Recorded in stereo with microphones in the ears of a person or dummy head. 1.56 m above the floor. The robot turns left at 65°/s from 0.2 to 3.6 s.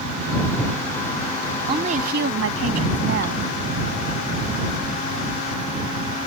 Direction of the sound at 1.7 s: 30° right.